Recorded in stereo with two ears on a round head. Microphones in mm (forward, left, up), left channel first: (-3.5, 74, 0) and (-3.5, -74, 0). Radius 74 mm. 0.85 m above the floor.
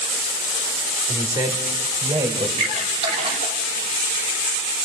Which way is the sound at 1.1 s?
20° right (ahead or behind).